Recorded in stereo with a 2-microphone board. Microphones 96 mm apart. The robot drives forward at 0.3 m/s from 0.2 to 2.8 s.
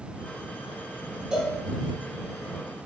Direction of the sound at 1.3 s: 10° right (ahead or behind).